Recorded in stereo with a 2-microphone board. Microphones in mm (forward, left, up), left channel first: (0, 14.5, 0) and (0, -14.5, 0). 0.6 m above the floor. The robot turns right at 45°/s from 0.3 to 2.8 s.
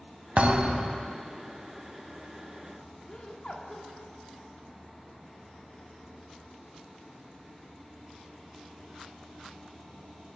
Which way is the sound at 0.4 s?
60° right.